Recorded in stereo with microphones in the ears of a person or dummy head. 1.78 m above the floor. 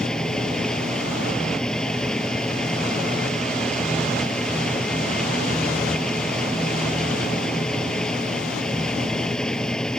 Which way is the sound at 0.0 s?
5° left (ahead or behind).